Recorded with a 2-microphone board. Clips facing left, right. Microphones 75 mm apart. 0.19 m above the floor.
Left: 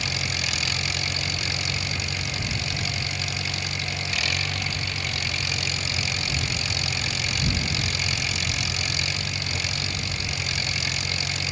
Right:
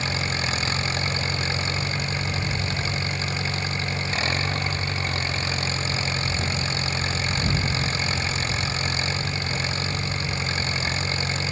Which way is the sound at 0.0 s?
35° right (ahead or behind).